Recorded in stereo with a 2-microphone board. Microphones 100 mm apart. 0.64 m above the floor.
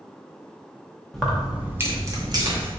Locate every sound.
1.1 s keys jangling: 5° left (ahead or behind), 0.6 m; by 2.7 s 45° right (ahead or behind), 0.8 m